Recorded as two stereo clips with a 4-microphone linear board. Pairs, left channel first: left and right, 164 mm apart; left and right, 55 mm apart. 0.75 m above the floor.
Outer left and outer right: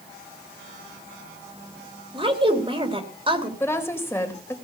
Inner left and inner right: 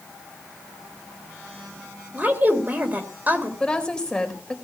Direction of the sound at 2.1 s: 30° right (ahead or behind).